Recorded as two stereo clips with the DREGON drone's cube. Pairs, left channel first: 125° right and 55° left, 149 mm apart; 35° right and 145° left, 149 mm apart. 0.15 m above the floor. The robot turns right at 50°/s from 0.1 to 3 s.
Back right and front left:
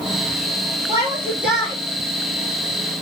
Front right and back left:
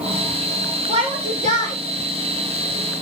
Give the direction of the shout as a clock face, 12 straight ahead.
8 o'clock.